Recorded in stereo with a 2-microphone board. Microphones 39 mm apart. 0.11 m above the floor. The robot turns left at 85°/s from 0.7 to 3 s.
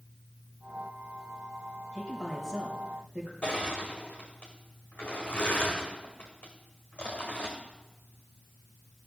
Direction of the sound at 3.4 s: 35° left (ahead or behind).